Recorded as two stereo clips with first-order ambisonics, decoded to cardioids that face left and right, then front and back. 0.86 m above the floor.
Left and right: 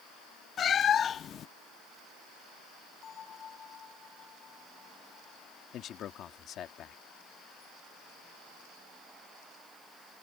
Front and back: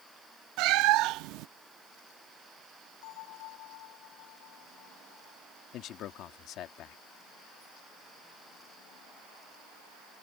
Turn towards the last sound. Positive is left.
turn(degrees=40)